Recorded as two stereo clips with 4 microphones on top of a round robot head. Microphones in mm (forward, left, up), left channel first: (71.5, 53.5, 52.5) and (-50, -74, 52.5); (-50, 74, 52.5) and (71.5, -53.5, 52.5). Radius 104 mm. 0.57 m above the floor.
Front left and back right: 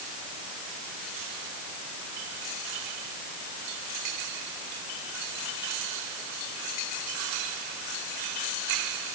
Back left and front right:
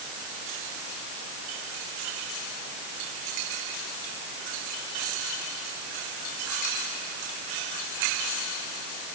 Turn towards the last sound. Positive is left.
No sound to turn to.